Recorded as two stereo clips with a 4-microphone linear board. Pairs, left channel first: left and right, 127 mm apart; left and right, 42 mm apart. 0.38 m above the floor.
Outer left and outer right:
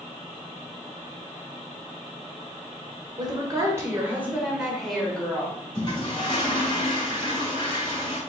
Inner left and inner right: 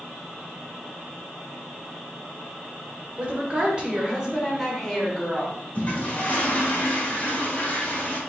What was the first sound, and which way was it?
A woman speaking, 35° right (ahead or behind).